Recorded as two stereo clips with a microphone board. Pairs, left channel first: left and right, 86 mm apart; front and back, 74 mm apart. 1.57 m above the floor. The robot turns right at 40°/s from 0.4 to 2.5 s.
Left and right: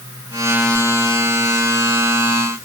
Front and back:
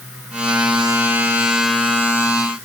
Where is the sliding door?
I don't hear a sliding door.